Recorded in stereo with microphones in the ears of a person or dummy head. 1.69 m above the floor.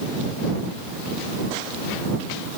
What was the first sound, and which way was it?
Only background noise.